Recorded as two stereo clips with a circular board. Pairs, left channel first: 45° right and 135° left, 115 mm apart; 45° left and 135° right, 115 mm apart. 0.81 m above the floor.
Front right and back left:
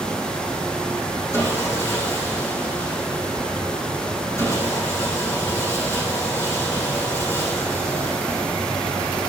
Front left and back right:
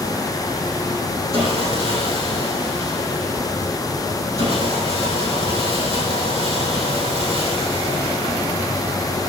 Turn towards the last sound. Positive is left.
turn(degrees=-110)